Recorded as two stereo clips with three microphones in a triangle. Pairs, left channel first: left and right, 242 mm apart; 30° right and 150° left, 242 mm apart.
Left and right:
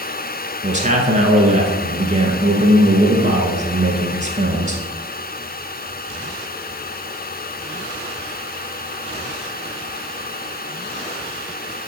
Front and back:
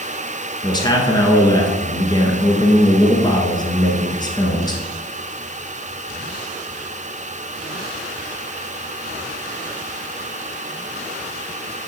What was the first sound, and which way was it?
A man speaking, 85° right.